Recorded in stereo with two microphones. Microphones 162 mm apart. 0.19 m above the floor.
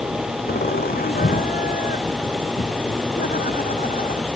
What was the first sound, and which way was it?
Laughter, 70° left (ahead or behind).